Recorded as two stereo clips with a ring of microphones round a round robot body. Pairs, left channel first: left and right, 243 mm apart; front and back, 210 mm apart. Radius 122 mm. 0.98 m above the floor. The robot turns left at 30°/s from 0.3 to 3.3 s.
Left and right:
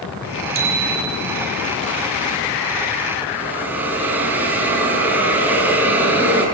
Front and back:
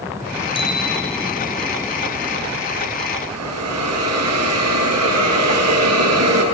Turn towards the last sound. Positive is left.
turn(degrees=-175)